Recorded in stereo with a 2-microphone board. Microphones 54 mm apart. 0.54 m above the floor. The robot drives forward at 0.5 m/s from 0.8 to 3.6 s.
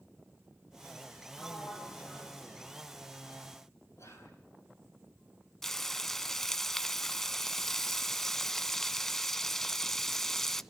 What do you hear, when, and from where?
1.3 s a sliding door: 25° left (ahead or behind), 7.5 m; by 2.7 s 20° left (ahead or behind), 8.5 m
4.0 s whispering: 60° left (ahead or behind), 6.5 m
5.6 s frying: 5° left (ahead or behind), 0.6 m